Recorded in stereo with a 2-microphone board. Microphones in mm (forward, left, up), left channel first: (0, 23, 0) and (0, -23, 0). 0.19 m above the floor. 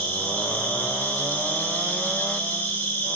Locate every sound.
0.0 s an insect: 55° left (ahead or behind), 6.5 m